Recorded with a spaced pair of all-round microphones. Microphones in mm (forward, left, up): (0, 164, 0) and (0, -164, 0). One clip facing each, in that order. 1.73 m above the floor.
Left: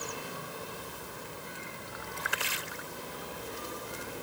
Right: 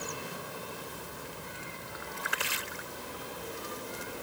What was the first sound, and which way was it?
Only background noise.